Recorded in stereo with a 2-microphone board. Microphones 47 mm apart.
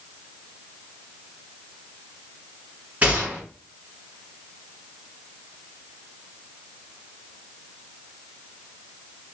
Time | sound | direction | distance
3.0 | a gunshot | 25° right (ahead or behind) | 1.8 m